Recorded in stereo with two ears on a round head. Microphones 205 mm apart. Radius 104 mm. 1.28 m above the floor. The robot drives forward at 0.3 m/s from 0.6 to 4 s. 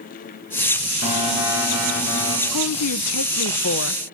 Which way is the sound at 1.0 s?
70° left (ahead or behind).